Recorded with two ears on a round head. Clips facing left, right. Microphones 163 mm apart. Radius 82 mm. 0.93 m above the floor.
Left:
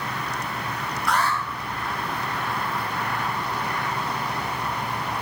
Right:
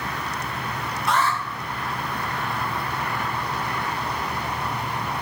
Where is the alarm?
20° right (ahead or behind), 5.5 m.